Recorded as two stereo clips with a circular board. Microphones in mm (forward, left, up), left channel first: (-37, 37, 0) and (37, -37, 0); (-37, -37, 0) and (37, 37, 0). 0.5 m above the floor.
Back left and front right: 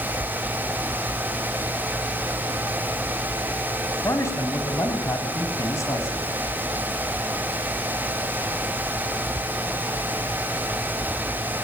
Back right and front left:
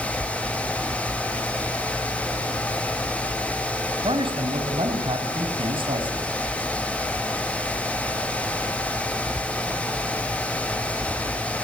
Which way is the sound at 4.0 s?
75° left.